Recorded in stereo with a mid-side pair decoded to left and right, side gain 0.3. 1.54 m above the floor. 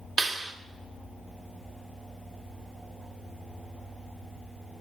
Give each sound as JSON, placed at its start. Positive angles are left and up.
{"t": 0.2, "sound": "a clap", "azimuth_deg": -65, "distance_m": 2.5}